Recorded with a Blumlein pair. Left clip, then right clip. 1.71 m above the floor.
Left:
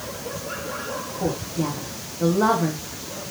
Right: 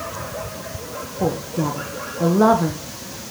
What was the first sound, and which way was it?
A woman speaking, 20° right.